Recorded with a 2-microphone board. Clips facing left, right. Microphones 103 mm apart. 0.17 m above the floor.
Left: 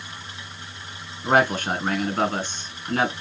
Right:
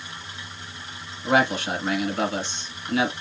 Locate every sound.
1.2 s a man speaking: 45° left (ahead or behind), 1.6 m